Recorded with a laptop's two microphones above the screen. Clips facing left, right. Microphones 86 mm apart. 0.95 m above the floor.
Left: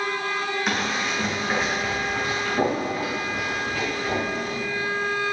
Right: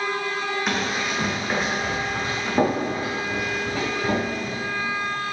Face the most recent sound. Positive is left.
turn(degrees=-35)  # may be behind; listen again after turning